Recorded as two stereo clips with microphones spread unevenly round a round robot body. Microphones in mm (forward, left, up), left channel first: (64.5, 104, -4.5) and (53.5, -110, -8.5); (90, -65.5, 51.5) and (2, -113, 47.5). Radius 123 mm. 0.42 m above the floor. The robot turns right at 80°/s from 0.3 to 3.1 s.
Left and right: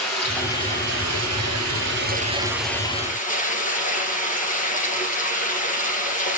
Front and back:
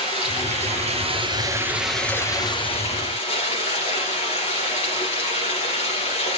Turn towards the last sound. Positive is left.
turn(degrees=35)